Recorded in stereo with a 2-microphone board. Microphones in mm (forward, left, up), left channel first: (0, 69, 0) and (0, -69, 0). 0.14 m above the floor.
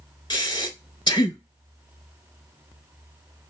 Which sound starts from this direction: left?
Breathing, at 0.3 s.